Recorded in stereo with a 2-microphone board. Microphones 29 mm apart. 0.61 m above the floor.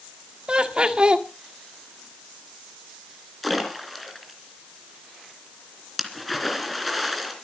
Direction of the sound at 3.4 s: 5° left (ahead or behind).